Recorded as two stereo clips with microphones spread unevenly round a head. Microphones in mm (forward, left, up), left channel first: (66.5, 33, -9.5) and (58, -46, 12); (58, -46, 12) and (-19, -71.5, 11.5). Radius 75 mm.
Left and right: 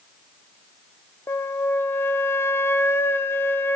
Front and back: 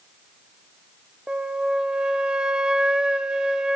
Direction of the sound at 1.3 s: 120° left.